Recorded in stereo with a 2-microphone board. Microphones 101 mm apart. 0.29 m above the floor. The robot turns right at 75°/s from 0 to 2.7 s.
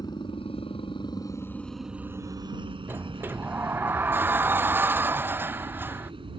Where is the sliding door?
20° right (ahead or behind).